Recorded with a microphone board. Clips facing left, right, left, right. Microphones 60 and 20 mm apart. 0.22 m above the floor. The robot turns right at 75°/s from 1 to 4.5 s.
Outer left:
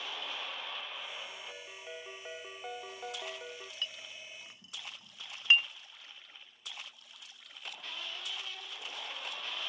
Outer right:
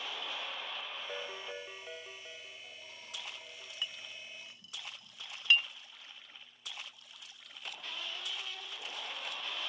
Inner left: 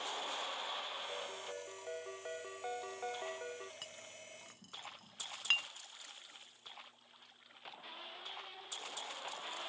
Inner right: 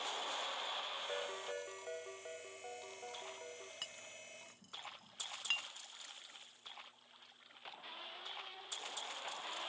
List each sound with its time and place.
1.1 s a ringtone: 55° right; by 3.7 s 140° left
3.8 s a clink: 15° right (ahead or behind); by 5.7 s 25° left (ahead or behind)